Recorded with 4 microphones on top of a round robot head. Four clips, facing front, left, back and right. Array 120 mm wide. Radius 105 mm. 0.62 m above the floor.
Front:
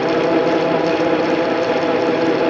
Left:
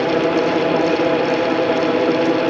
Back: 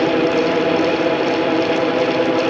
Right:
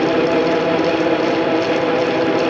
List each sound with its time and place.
Only background noise.